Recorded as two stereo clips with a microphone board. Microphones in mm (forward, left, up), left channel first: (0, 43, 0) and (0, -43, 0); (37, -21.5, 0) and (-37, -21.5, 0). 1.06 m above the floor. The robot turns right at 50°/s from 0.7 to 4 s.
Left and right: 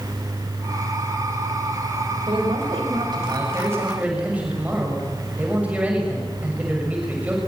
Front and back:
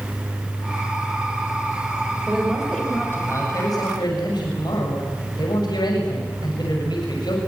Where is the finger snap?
No finger snap in this recording.